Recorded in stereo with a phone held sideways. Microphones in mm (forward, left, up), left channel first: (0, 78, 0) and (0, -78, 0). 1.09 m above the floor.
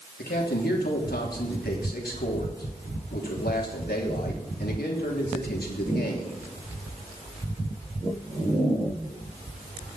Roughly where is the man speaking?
Left.